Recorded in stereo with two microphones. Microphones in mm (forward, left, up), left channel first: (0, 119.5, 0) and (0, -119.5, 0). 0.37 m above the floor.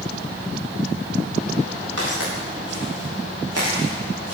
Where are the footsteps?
80° right, 5.5 m.